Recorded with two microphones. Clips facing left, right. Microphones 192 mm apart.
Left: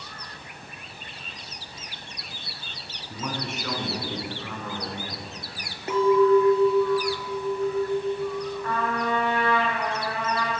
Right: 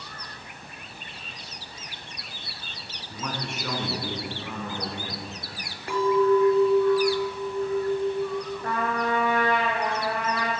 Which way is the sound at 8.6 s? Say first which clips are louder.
Right 1 dB; 40° right (ahead or behind).